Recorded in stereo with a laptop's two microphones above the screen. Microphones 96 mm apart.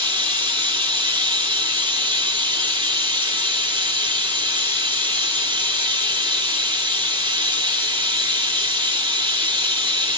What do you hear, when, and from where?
0.0 s running water: 60° right (ahead or behind), 2.5 m